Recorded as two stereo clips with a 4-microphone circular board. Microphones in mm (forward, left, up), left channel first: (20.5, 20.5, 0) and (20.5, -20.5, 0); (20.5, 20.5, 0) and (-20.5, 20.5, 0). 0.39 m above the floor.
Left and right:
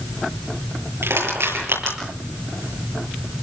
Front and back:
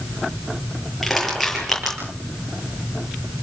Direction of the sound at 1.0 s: 90° right.